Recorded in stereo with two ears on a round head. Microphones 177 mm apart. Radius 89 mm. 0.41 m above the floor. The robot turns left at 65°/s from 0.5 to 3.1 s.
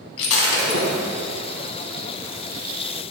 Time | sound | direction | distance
0.2 | breaking glass | 75° left (ahead or behind) | 1.9 m